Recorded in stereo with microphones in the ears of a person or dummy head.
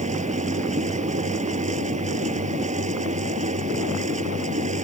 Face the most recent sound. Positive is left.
turn(degrees=-40)  # may be behind; listen again after turning